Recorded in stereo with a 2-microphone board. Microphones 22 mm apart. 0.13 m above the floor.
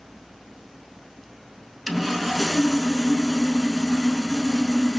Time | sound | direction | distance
1.9 | sawing | centre (ahead or behind) | 0.6 m